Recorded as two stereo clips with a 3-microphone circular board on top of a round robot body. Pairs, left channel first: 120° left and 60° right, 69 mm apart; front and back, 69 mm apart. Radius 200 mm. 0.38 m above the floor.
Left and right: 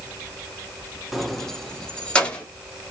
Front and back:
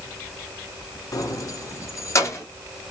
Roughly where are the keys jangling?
Ahead left.